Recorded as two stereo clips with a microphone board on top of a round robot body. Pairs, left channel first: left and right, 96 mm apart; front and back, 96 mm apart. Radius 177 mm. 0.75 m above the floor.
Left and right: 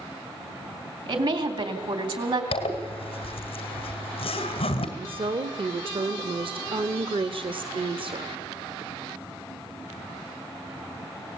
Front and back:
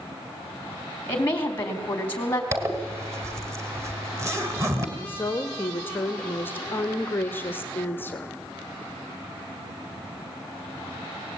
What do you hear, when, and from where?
1.1 s a woman speaking: 70° right, 3 m
2.5 s a zipper: 120° left, 2.0 m
5.0 s a woman speaking: 70° right, 1.2 m